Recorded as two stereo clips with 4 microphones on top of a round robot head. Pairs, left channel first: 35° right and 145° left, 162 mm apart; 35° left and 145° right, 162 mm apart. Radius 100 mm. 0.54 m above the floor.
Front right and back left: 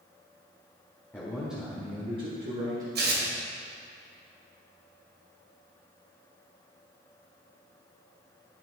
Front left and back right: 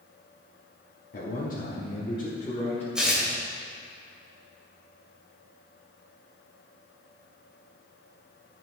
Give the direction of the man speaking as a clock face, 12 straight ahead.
11 o'clock.